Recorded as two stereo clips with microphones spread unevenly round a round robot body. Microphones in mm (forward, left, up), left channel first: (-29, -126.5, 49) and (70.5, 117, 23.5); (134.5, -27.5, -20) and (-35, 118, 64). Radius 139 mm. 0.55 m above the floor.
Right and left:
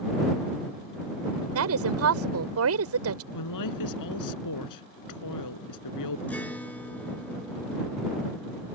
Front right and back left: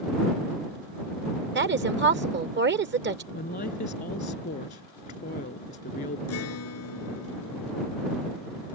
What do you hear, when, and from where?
1.6 s a woman speaking: 95° left
3.3 s a woman speaking: 100° right
6.3 s a guitar: 30° right